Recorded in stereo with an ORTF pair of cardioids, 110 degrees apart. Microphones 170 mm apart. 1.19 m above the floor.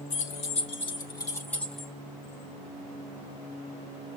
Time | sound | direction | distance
0.1 | keys jangling | 50° left | 1.3 m